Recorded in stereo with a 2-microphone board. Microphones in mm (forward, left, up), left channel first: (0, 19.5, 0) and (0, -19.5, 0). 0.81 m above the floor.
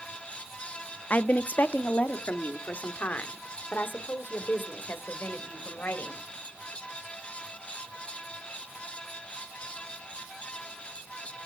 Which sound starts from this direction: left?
A woman speaking, at 1.1 s.